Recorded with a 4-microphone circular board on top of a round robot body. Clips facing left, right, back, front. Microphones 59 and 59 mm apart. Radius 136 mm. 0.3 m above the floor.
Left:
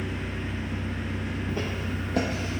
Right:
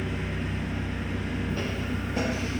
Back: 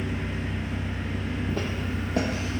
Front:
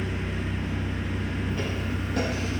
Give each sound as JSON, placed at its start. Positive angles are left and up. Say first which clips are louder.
{"t": 0.0, "sound": "an engine running", "louder": "right 1 dB, even", "azimuth_deg": -75, "distance_m": 1.5}
{"t": 1.5, "sound": "footsteps", "louder": "even, even", "azimuth_deg": 165, "distance_m": 0.6}